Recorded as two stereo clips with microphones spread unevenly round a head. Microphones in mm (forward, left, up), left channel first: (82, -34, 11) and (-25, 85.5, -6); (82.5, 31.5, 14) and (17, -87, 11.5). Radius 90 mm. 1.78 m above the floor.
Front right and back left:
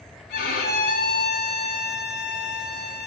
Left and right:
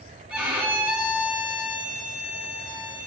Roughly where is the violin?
Ahead right.